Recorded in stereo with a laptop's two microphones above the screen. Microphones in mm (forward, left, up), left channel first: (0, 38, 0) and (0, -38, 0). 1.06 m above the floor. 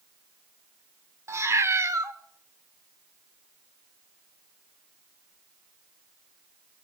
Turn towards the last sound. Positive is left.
turn(degrees=-40)  # may be behind; listen again after turning